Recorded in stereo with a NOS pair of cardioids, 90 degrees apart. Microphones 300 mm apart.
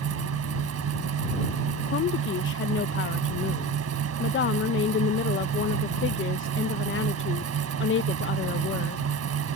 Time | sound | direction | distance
0.0 | a fan | 55° right | ?
1.9 | a woman speaking | 45° left | ?